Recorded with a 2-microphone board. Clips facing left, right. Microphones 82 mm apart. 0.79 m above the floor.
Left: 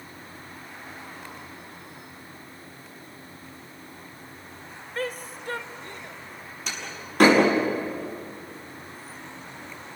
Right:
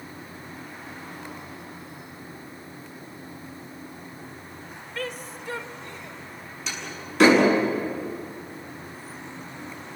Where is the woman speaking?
35° left (ahead or behind), 1.1 m; by 6.2 s 55° left (ahead or behind), 2.5 m.